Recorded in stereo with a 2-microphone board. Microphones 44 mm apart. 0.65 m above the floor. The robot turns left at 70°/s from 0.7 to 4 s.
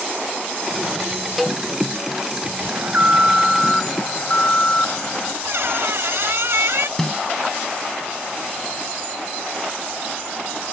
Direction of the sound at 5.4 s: 70° right (ahead or behind).